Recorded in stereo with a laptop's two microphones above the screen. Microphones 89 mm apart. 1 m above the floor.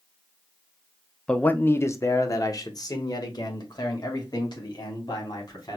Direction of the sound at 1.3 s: 10° left (ahead or behind).